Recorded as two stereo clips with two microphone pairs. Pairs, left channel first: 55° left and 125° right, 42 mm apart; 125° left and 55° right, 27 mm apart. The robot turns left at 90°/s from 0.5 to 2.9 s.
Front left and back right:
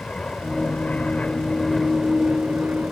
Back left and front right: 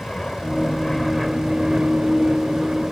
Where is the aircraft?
95° left; by 2.9 s 120° right.